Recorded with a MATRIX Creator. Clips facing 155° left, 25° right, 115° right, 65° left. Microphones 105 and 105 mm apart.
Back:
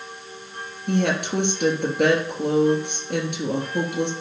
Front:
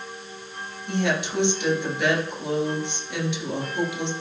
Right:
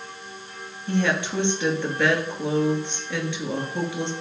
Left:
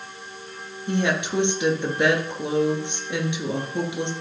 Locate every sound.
0.9 s a woman speaking: 135° left, 2.5 m